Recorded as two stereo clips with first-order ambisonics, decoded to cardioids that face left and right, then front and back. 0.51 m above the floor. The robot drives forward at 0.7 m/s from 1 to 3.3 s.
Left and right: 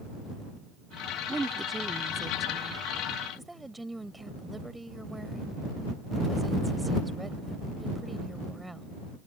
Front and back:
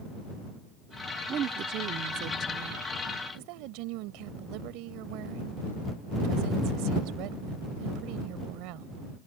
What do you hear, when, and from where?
1.3 s a woman speaking: 155° right; by 9.0 s 175° right